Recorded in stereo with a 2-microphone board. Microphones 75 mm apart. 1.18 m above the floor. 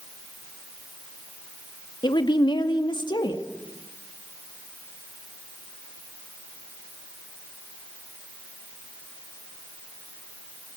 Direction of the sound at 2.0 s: 85° left.